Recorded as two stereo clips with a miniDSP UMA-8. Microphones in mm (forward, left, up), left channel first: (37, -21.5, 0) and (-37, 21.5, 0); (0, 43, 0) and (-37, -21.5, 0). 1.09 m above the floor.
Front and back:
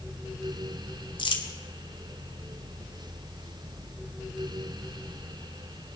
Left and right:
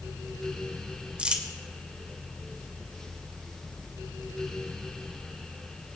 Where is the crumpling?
45° right, 1.7 m.